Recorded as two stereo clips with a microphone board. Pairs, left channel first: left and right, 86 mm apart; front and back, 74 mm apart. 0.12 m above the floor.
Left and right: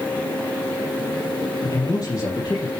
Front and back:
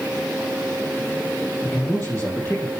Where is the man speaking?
55° left, 4 m.